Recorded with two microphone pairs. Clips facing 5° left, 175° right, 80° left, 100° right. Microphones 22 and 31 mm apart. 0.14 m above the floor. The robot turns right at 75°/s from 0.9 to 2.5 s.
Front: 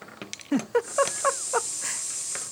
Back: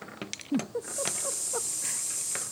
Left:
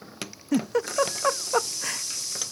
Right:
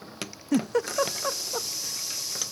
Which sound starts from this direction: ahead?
A giggle, at 0.5 s.